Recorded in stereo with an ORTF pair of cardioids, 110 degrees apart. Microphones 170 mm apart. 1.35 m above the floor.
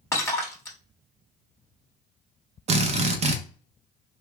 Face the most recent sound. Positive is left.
turn(degrees=-40)